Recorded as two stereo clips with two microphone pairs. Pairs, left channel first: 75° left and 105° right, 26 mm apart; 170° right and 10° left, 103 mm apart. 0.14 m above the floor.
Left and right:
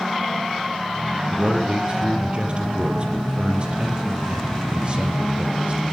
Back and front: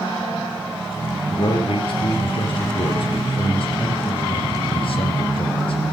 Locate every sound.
1.3 s a man speaking: 155° right, 4 m